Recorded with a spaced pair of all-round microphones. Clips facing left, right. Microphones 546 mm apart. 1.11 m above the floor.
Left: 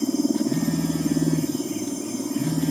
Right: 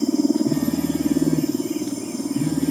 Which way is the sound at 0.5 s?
60° right (ahead or behind).